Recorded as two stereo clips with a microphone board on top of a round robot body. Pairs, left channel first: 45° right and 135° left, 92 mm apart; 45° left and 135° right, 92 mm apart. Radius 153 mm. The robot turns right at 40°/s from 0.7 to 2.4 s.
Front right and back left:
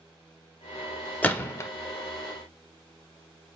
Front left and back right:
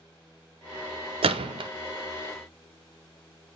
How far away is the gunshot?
About 0.6 m.